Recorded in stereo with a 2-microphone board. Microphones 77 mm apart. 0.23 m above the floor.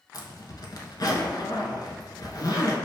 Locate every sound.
0.1 s a zipper: 60° left (ahead or behind), 0.6 m